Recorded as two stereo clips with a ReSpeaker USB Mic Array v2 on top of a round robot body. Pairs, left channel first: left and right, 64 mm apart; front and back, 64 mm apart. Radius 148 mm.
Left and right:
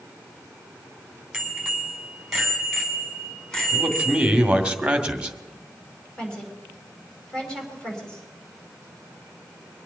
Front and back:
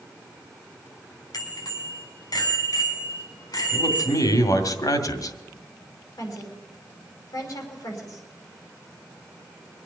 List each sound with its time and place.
1.3 s a bicycle bell: 5° right, 5.5 m; by 4.4 s 15° left, 6.5 m
3.7 s a man speaking: 15° right, 2 m
6.2 s a woman speaking: 15° left, 5.5 m